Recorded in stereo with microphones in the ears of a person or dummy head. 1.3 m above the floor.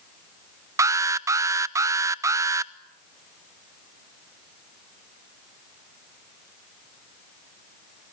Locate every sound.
0.8 s an alarm: 15° right (ahead or behind), 0.5 m